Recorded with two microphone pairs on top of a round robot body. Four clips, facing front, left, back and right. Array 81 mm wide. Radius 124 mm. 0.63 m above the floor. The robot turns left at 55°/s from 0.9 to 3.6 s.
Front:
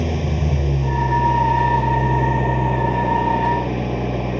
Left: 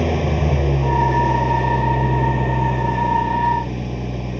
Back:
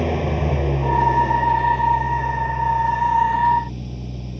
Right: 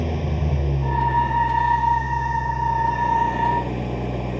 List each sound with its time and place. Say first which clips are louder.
0.0 s an engine running: left 6 dB, back 2 dB; 135° left; by 4.4 s 15° right